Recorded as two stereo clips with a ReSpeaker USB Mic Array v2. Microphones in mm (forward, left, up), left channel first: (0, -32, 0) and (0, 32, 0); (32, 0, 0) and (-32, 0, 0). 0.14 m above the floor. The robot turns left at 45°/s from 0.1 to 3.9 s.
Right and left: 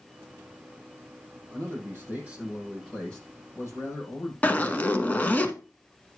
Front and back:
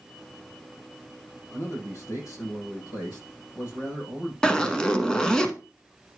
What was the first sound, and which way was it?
A man speaking, 55° left.